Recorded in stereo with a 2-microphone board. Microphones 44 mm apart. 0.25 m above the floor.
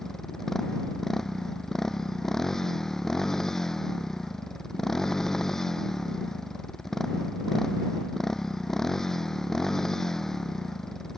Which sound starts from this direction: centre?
A motorcycle, at 0.0 s.